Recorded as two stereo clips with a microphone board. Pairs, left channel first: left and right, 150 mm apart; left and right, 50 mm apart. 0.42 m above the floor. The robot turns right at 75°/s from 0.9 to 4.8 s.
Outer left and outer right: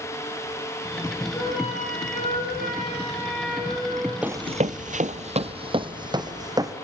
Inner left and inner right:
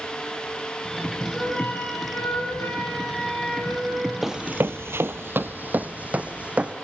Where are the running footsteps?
10° right (ahead or behind), 0.8 m; by 6.7 s 25° right (ahead or behind), 1.8 m.